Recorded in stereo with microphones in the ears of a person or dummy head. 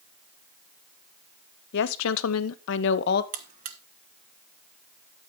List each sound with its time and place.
1.7 s a woman speaking: 65° left (ahead or behind), 1.0 m; by 3.2 s 50° left (ahead or behind), 1.0 m
3.3 s a buzzer: 45° right (ahead or behind), 1.2 m